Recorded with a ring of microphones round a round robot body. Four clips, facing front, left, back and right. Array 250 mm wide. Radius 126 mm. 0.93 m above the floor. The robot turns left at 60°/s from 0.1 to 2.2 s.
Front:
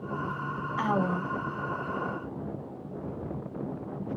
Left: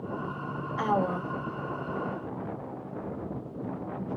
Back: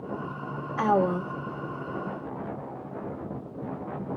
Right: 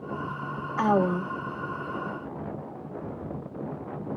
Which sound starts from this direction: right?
A woman speaking, at 0.8 s.